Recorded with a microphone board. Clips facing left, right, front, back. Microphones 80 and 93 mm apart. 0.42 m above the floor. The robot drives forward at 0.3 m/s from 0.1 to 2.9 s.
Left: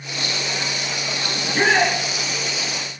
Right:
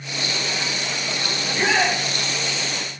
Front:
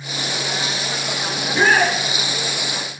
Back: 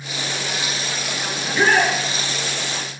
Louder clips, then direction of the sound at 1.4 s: Left 3 dB, front 1 dB; 60° left.